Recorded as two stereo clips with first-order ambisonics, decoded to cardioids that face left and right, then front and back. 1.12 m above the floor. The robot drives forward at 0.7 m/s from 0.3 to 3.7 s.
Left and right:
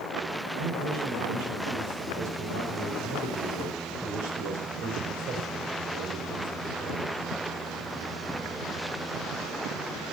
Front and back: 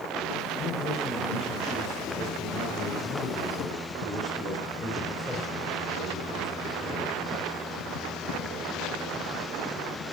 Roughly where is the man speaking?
Ahead right.